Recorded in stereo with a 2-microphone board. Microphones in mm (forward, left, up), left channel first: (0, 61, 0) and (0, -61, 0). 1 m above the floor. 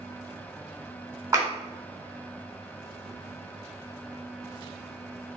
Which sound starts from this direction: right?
A clap, at 1.3 s.